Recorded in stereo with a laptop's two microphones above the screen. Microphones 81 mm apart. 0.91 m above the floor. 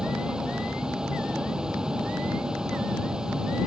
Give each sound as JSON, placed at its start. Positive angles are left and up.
{"t": 0.0, "sound": "a vehicle", "side_deg": -10}